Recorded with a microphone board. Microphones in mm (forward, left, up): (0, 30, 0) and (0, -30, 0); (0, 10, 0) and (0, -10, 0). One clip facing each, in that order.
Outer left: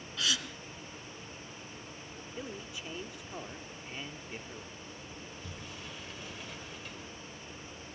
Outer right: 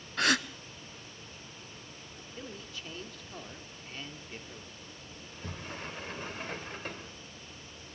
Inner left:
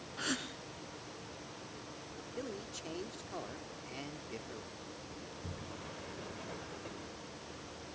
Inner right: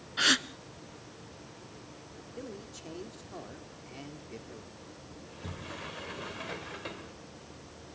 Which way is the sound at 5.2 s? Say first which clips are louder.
Outer right 2 dB, inner right 6 dB; 45° right (ahead or behind).